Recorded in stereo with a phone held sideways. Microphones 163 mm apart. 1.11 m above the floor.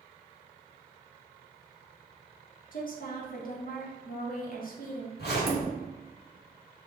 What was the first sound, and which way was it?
A woman speaking, 60° left (ahead or behind).